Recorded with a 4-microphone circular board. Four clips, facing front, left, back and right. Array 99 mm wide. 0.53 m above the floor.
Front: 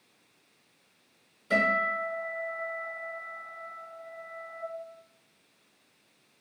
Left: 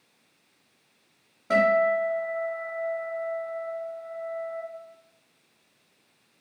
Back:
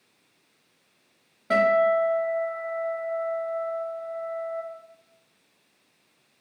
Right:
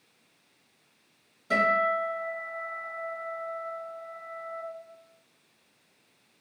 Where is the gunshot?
No gunshot in this recording.